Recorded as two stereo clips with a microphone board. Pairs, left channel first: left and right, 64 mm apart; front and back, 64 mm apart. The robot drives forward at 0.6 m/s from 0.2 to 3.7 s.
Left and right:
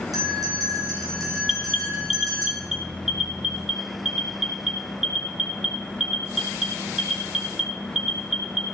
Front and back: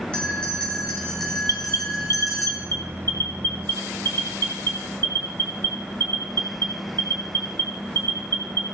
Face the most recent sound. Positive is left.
turn(degrees=180)